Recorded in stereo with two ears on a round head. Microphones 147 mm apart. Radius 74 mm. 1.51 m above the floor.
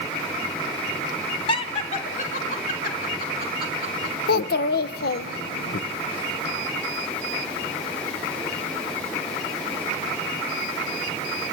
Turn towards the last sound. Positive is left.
turn(degrees=60)  # may be behind; listen again after turning